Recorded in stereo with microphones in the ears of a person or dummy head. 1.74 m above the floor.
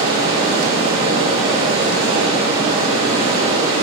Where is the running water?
30° right (ahead or behind), 1.3 m.